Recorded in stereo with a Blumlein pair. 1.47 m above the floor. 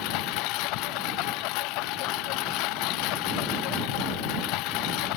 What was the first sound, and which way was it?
A lawn mower, 40° left.